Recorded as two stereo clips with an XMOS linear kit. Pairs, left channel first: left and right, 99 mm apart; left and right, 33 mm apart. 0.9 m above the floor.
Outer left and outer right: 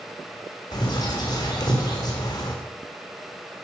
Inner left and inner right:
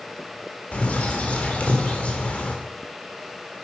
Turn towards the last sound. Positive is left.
turn(degrees=45)  # may be behind; listen again after turning